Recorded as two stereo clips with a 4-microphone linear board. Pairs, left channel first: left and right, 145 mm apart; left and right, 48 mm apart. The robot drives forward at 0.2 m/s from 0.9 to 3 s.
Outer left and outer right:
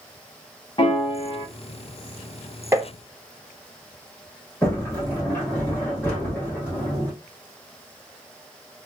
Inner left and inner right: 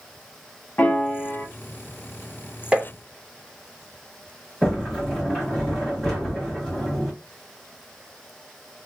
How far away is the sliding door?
About 1.9 m.